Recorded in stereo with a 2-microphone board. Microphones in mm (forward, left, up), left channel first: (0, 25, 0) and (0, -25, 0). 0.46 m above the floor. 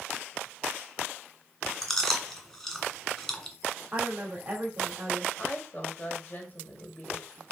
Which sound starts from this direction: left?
A woman speaking, at 5.4 s.